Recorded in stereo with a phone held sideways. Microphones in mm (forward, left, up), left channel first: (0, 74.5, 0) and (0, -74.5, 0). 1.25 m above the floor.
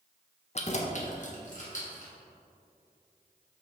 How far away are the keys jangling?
About 0.5 m.